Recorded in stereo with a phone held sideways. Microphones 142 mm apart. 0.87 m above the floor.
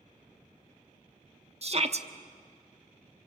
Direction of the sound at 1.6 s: 50° right (ahead or behind).